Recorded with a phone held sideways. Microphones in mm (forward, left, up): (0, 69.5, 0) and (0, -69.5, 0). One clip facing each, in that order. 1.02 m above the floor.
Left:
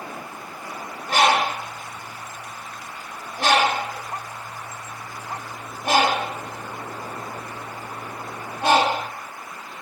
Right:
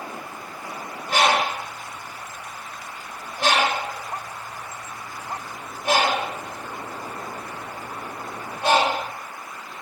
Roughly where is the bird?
Left.